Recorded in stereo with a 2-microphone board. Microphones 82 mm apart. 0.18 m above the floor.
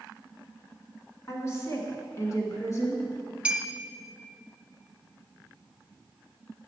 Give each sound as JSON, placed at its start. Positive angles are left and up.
{"t": 1.3, "sound": "a woman speaking", "side_deg": 30, "distance_m": 1.4}
{"t": 3.5, "sound": "a clink", "side_deg": -15, "distance_m": 0.8}